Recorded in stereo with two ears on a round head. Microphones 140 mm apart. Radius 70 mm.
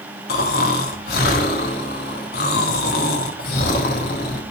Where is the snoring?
65° left (ahead or behind), 1.5 m.